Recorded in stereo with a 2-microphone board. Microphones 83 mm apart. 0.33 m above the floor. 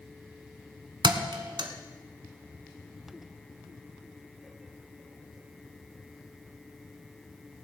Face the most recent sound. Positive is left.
turn(degrees=-70)  # may be behind; listen again after turning